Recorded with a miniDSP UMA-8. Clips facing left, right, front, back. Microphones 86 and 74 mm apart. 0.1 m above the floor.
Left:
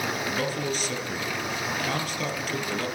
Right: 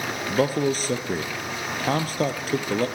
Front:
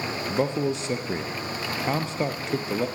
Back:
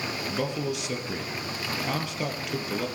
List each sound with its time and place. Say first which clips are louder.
0.3 s a man speaking: right 6 dB, front 6 dB; 55° right, 3 m